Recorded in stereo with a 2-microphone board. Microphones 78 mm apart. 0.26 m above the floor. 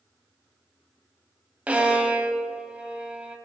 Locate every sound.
1.7 s a violin: 15° right (ahead or behind), 0.6 m